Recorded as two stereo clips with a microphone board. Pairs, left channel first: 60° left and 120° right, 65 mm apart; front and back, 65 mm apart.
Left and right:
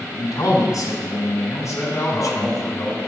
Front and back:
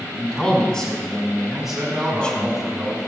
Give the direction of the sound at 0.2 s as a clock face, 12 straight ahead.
9 o'clock.